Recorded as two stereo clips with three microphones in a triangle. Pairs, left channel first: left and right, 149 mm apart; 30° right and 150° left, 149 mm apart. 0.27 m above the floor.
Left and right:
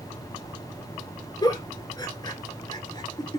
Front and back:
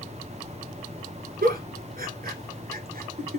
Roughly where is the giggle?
Behind left.